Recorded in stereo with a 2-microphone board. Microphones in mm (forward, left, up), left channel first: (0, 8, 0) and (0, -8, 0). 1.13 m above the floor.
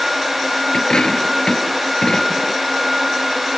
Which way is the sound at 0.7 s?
60° left (ahead or behind).